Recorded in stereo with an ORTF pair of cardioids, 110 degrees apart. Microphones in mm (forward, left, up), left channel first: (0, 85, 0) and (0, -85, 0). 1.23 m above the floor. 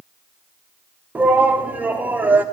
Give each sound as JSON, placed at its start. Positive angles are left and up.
{"t": 1.1, "sound": "a shout", "azimuth_deg": -10, "distance_m": 1.5}